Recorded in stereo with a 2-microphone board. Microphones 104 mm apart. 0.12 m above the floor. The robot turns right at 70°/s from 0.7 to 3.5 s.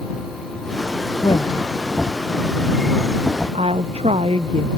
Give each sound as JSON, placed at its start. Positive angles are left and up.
{"t": 1.2, "sound": "a woman speaking", "side_deg": 50}